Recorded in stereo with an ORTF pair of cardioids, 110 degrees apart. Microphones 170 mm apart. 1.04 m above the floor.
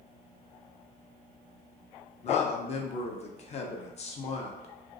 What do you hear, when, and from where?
2.2 s a man speaking: 40° left, 0.6 m